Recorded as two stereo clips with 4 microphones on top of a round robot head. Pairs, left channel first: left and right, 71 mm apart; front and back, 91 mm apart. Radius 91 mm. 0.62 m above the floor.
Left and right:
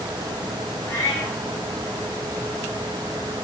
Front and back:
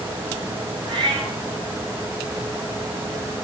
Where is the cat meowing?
150° left, 1.8 m.